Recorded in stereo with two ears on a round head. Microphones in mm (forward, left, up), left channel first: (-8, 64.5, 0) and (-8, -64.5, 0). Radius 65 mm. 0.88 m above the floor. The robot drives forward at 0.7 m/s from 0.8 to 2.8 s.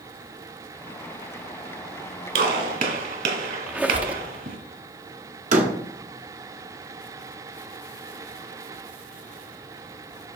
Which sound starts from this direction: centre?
A squeak, at 3.7 s.